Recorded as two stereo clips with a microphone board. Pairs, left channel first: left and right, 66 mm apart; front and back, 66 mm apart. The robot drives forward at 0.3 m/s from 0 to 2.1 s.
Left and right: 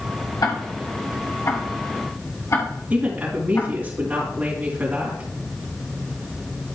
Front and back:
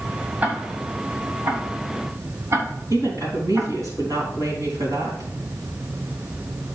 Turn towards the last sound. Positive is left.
turn(degrees=-155)